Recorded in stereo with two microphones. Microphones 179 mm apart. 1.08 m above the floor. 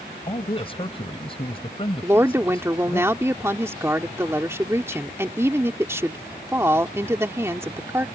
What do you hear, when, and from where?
0.3 s a man speaking: 30° left (ahead or behind)
2.0 s a woman speaking: 15° right (ahead or behind)